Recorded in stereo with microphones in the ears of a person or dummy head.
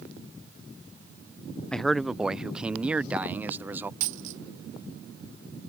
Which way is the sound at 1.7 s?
5° left (ahead or behind).